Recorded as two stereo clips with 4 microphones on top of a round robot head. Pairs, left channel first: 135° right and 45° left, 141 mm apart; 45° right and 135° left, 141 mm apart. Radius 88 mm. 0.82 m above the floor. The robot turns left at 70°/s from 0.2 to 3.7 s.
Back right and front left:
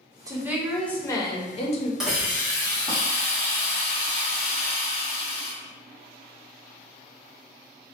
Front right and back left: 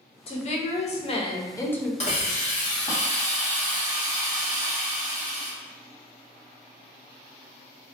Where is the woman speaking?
15° right, 0.6 m; by 1.9 s 130° right, 0.6 m.